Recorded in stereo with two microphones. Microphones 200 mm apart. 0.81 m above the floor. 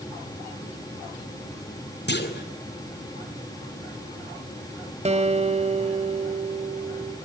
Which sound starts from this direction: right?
A guitar, at 5.0 s.